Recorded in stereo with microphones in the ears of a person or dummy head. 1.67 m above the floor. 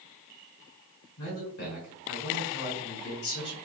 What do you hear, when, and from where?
1.2 s a man speaking: 70° left (ahead or behind), 1.2 m